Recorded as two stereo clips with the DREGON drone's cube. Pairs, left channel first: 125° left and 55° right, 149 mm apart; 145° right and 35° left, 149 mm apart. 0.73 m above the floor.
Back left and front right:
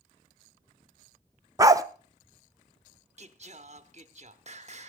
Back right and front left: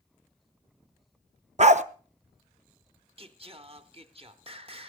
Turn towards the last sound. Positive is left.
turn(degrees=-15)